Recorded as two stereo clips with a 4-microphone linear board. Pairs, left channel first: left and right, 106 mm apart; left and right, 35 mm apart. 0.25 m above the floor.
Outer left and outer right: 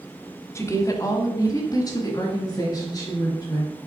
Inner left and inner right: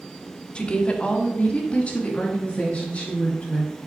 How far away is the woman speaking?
About 1.1 m.